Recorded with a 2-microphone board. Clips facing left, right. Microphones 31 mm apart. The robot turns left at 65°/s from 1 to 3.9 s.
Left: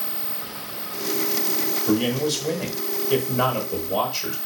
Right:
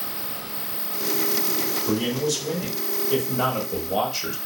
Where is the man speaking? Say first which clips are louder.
Left 3 dB; 130° left, 1.3 m; by 4.3 s straight ahead, 1.3 m.